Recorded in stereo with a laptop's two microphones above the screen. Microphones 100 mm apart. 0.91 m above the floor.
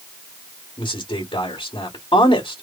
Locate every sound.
0.8 s a man speaking: 55° left (ahead or behind), 1.9 m